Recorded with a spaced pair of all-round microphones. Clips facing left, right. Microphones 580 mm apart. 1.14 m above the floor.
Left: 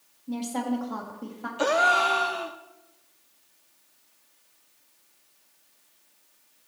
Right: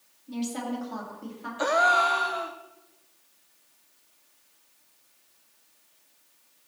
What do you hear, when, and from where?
0.3 s a woman speaking: 80° left, 2.0 m
1.6 s a gasp: 60° left (ahead or behind), 0.6 m